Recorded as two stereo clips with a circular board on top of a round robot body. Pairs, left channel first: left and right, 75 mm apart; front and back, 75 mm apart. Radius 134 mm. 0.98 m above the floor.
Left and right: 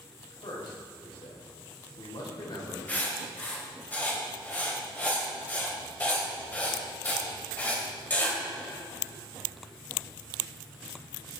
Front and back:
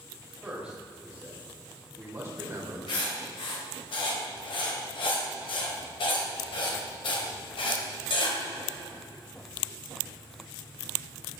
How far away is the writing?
About 2.5 m.